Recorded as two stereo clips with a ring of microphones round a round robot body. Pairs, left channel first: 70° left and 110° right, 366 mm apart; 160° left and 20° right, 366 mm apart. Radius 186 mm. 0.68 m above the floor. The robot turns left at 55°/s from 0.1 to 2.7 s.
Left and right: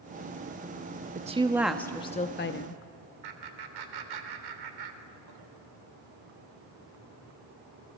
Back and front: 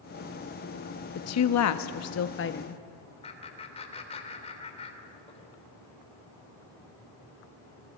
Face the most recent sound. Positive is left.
turn(degrees=-130)